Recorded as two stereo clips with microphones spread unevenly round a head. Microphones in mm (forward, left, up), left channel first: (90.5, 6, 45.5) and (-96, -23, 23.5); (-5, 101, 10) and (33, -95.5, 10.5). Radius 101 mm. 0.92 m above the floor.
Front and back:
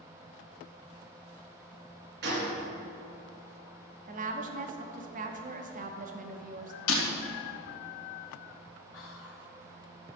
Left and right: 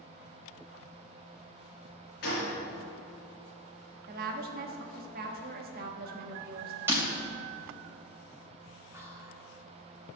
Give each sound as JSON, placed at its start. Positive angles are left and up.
{"t": 2.2, "sound": "a gunshot", "azimuth_deg": 150, "distance_m": 4.0}
{"t": 4.1, "sound": "a woman speaking", "azimuth_deg": -125, "distance_m": 1.2}
{"t": 6.9, "sound": "breaking glass", "azimuth_deg": 0, "distance_m": 2.5}
{"t": 8.9, "sound": "whispering", "azimuth_deg": 0, "distance_m": 2.5}